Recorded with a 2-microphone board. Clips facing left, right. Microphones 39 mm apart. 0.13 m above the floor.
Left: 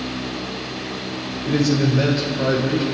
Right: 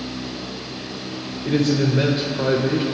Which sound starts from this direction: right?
A man speaking, at 1.4 s.